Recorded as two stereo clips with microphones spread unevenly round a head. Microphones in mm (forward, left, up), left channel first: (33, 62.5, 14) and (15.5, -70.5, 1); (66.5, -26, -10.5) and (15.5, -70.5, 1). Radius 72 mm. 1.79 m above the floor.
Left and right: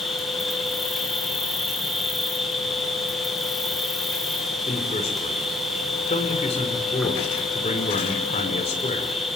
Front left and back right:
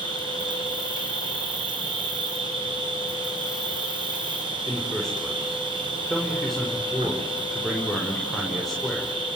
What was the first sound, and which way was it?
An insect, 170° left.